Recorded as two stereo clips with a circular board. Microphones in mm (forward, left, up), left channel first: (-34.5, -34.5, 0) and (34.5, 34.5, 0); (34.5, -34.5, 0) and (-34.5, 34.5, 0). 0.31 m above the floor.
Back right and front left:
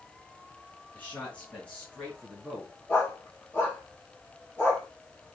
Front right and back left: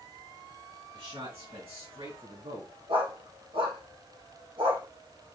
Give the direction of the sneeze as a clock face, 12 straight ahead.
I don't hear a sneeze.